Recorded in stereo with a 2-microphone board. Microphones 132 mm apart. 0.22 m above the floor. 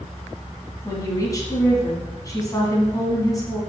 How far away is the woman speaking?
About 2.0 m.